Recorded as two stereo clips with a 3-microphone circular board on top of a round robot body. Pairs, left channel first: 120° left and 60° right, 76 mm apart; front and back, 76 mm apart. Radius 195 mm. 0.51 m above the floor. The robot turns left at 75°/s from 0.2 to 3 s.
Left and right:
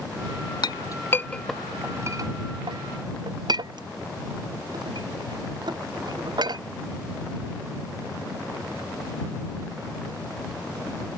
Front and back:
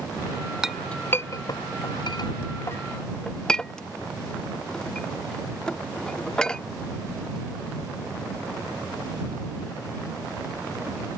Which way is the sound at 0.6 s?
95° left.